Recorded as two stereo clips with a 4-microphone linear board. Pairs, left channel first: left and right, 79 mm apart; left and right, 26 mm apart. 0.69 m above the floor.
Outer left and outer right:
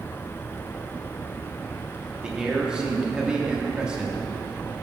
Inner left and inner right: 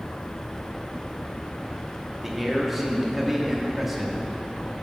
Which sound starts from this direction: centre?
A man speaking, at 2.2 s.